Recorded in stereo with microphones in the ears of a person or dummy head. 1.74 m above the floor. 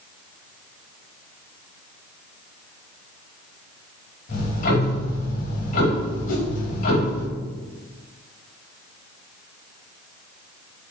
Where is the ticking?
55° left (ahead or behind), 5.5 m.